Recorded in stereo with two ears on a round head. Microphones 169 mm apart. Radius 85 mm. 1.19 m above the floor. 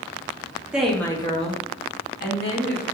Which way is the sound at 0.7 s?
5° right (ahead or behind).